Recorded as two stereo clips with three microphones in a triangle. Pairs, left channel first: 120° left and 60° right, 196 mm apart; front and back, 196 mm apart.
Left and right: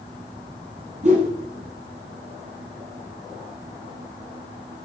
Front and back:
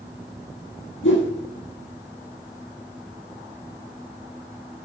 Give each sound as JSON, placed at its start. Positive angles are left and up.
{"t": 1.0, "sound": "a whoosh", "azimuth_deg": -5, "distance_m": 3.0}